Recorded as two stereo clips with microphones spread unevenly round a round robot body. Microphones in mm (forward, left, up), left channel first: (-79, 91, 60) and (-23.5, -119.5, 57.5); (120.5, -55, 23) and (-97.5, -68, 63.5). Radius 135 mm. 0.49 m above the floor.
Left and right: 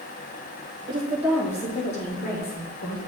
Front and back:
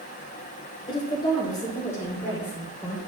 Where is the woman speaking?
30° right, 1.5 m; by 3.0 s 85° left, 2.5 m.